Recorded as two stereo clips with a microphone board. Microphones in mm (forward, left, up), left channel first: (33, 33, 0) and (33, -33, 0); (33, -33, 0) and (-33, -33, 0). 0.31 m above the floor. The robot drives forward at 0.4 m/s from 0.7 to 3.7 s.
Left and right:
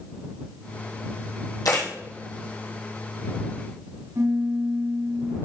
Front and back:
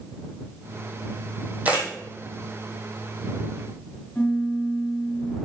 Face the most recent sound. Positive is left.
turn(degrees=-70)